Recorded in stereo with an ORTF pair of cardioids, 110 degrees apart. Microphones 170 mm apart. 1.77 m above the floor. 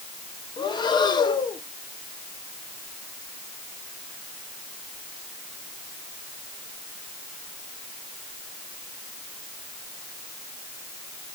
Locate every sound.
0.6 s breathing: 25° left, 2 m